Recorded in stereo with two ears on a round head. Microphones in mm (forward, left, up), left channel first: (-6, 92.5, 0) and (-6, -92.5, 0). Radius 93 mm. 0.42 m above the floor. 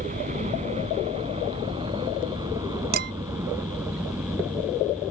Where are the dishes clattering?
55° right (ahead or behind).